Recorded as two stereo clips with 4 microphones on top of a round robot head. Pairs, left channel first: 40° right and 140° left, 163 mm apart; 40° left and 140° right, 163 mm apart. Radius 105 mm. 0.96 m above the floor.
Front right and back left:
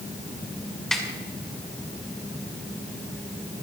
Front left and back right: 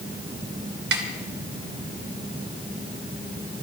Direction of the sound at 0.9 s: 125° right.